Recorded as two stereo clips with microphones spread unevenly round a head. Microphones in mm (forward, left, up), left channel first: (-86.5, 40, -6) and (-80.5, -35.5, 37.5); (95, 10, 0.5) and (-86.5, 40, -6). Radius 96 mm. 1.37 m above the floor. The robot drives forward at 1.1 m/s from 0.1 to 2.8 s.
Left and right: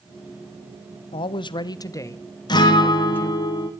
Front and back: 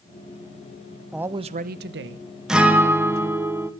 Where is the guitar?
85° left, 2 m; by 3.7 s 95° left, 2 m.